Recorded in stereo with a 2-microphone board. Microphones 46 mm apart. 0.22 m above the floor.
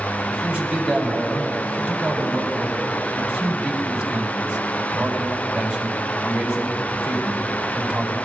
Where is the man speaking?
15° right (ahead or behind), 1.4 m.